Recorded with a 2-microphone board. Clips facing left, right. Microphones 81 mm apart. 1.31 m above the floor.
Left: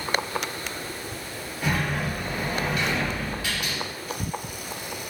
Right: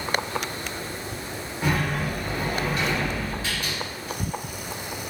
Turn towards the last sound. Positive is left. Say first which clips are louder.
# right 1 dB
turn(degrees=-30)  # may be behind; listen again after turning